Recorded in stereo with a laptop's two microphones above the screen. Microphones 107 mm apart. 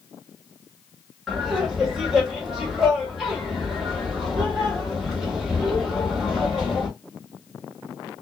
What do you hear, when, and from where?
1.3 s laughter: 5° right (ahead or behind), 1.4 m